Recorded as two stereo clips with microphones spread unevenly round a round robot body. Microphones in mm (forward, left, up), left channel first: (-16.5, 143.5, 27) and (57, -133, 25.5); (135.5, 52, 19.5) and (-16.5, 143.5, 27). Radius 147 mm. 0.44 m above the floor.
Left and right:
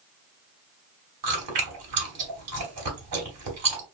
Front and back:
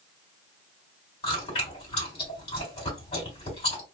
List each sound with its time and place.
1.2 s chewing: 85° right, 1.6 m